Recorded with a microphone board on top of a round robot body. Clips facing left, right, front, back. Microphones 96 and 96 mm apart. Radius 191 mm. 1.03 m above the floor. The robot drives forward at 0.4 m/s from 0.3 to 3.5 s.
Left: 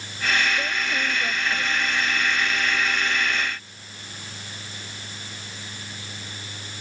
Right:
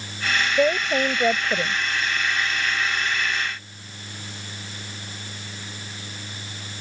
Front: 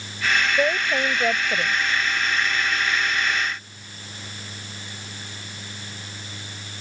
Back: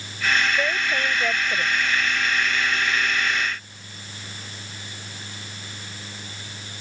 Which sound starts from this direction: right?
A woman speaking, at 0.6 s.